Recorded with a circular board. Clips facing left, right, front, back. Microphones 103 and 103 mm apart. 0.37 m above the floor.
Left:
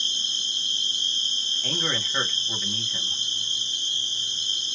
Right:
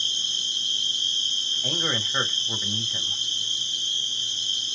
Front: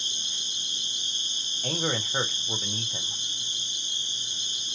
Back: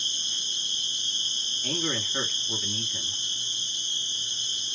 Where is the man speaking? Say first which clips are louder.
Right 1 dB, front 2 dB; 15° right, 1.6 m.